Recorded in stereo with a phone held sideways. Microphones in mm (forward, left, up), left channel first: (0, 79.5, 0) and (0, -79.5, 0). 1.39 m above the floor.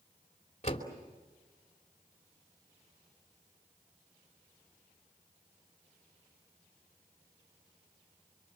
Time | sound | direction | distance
0.6 | a door slam | 45° left (ahead or behind) | 3 m